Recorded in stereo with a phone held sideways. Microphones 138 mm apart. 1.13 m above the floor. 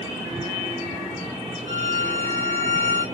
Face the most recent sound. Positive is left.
turn(degrees=-45)  # may be behind; listen again after turning